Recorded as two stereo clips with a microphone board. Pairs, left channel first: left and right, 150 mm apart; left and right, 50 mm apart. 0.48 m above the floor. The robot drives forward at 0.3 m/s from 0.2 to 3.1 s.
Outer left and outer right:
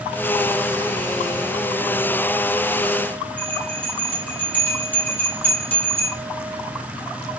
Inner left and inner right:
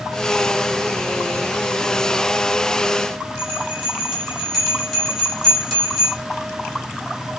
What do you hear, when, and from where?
3.4 s a bell: 10° left (ahead or behind), 1.2 m